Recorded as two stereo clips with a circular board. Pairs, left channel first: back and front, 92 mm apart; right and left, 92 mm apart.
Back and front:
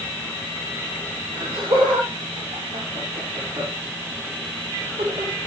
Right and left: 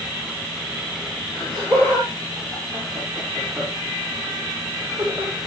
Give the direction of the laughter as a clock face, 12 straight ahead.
12 o'clock.